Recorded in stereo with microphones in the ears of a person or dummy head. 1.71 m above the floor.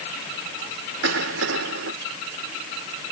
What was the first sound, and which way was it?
A cough, 90° right.